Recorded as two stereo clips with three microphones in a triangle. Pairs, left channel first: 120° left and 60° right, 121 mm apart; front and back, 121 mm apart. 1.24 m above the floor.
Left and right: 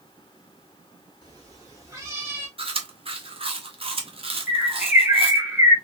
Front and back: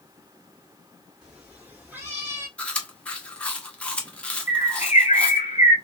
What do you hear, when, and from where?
1.2 s a cat meowing: 100° right, 1.7 m; by 2.5 s 125° right, 1.4 m
2.6 s chewing: 80° right, 0.8 m
4.5 s a bird: 20° left, 2 m